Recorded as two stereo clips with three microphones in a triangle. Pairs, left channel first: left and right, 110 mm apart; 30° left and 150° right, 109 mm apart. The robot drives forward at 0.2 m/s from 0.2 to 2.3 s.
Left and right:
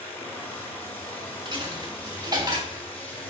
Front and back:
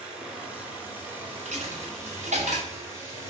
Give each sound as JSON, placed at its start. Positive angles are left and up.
{"t": 0.0, "sound": "running water", "azimuth_deg": 145, "distance_m": 1.1}
{"t": 1.4, "sound": "a dropped coin", "azimuth_deg": -145, "distance_m": 0.9}